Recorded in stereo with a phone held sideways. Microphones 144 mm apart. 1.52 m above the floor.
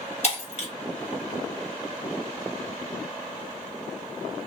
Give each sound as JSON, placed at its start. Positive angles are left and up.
{"t": 0.2, "sound": "breaking glass", "side_deg": 45, "distance_m": 1.2}